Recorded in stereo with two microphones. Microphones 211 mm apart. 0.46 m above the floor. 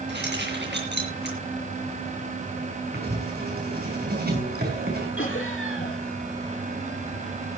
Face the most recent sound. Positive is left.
turn(degrees=70)  # may be behind; listen again after turning